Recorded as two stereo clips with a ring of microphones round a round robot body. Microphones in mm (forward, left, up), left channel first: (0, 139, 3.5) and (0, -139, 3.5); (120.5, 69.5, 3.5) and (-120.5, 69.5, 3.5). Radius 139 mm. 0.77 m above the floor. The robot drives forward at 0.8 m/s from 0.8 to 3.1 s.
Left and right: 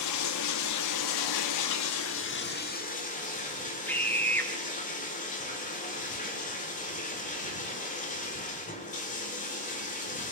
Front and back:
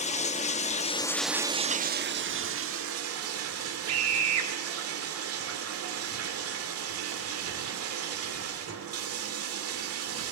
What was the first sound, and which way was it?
Running water, 65° left.